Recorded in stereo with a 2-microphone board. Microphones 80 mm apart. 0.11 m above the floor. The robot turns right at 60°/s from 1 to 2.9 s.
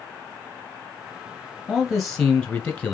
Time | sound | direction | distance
1.7 | a man speaking | centre (ahead or behind) | 1.1 m